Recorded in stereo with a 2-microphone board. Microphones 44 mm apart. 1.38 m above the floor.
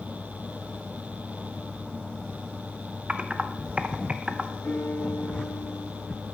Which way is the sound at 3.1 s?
25° right (ahead or behind).